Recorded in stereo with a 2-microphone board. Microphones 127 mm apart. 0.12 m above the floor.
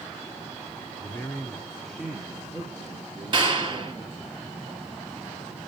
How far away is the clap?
About 2 m.